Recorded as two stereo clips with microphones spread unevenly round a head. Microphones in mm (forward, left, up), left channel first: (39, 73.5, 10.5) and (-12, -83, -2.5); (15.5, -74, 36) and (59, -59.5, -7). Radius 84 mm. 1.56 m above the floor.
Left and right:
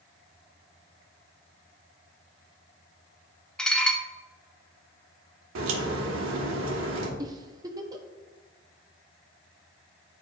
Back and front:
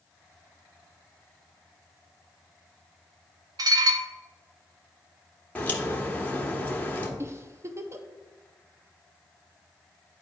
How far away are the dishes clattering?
About 0.6 m.